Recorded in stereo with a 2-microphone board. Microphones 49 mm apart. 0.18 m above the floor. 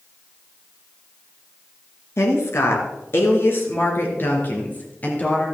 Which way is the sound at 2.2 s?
60° left (ahead or behind).